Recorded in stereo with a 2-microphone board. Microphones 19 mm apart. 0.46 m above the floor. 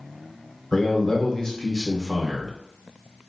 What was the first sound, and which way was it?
A man speaking, 30° left (ahead or behind).